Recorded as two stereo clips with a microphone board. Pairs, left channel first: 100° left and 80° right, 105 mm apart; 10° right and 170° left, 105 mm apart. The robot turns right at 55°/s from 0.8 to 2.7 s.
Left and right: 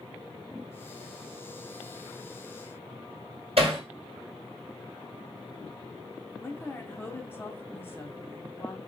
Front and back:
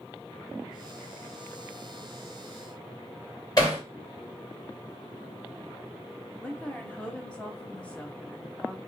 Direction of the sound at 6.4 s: 55° left.